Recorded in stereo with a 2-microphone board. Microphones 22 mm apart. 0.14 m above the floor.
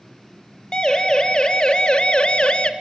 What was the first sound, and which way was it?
A siren, 35° left (ahead or behind).